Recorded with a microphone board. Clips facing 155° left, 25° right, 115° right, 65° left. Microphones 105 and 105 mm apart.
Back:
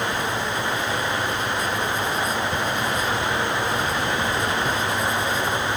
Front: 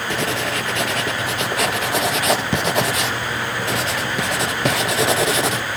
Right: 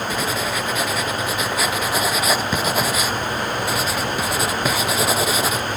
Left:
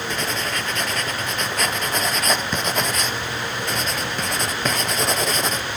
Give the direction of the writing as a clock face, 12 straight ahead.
1 o'clock.